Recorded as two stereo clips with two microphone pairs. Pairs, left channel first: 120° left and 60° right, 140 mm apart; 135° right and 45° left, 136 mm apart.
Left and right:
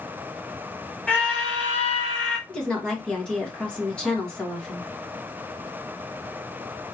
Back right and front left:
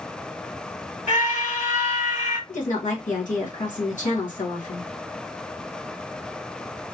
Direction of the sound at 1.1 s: 160° right.